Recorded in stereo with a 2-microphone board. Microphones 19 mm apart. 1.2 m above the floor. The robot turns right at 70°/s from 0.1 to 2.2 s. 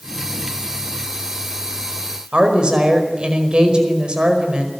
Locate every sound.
2.3 s a woman speaking: 60° right (ahead or behind), 5 m